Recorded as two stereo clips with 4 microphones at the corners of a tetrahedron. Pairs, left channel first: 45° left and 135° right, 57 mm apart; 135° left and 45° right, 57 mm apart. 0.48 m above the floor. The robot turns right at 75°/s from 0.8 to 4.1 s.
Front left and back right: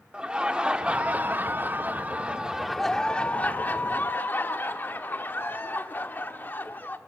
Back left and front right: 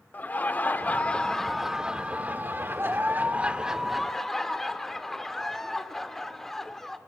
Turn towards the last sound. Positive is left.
turn(degrees=55)